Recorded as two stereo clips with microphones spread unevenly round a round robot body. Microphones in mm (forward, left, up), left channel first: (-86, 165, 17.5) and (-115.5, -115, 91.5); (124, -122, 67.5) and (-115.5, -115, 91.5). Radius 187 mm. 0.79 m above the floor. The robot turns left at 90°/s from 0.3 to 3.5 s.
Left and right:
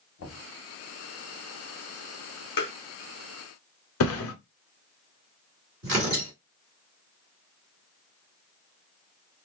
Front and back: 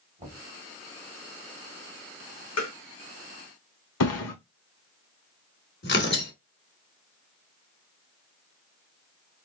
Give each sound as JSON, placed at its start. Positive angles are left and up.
{"t": 0.2, "sound": "knocking", "azimuth_deg": 110, "distance_m": 1.7}
{"t": 2.6, "sound": "tapping", "azimuth_deg": 45, "distance_m": 0.8}
{"t": 4.0, "sound": "a thud", "azimuth_deg": 35, "distance_m": 1.0}
{"t": 5.8, "sound": "tearing paper", "azimuth_deg": -35, "distance_m": 2.5}